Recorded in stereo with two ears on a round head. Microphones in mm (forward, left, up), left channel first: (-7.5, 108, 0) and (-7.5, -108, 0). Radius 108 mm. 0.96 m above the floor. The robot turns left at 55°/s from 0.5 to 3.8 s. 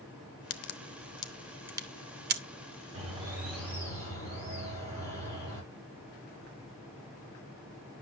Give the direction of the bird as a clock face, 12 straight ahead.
5 o'clock.